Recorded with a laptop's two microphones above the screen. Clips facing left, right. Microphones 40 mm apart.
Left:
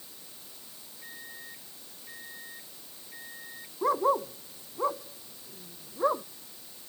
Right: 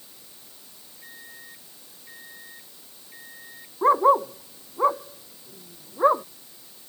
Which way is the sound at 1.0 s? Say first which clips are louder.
Even; centre (ahead or behind).